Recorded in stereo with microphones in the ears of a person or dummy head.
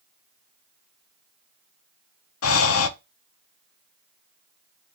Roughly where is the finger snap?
No finger snap in this recording.